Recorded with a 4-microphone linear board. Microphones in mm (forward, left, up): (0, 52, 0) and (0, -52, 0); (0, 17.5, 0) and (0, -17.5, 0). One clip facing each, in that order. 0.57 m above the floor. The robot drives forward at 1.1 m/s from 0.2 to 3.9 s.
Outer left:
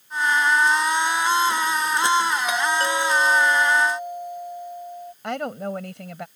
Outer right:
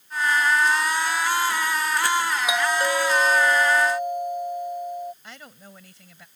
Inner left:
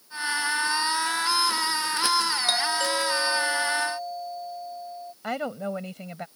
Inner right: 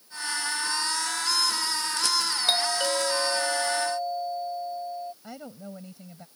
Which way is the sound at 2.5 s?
15° right (ahead or behind).